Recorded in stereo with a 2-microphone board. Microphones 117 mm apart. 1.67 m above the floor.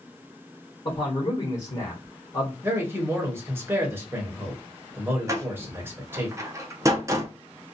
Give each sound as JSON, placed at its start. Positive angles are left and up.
{"t": 0.8, "sound": "a man speaking", "side_deg": 40, "distance_m": 1.1}
{"t": 2.6, "sound": "a man speaking", "side_deg": -20, "distance_m": 1.2}
{"t": 5.3, "sound": "a door slam", "side_deg": -25, "distance_m": 0.7}